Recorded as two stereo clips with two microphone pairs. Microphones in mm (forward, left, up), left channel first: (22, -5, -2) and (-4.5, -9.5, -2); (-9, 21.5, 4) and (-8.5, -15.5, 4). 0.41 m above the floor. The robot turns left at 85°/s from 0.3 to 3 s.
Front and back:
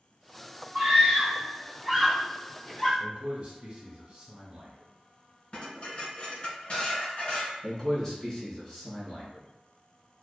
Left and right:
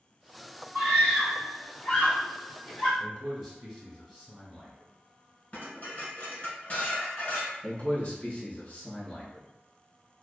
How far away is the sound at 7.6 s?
About 1.0 m.